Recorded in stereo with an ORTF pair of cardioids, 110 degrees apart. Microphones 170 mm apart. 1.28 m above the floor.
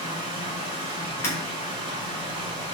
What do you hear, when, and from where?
0.0 s running water: 30° right, 1.5 m
1.2 s breaking glass: 15° left, 1.8 m